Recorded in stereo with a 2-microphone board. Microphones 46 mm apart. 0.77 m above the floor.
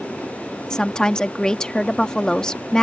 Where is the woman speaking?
15° left (ahead or behind).